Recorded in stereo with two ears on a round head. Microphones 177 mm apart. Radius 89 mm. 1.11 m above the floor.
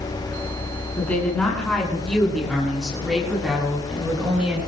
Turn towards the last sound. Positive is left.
turn(degrees=-5)  # may be behind; listen again after turning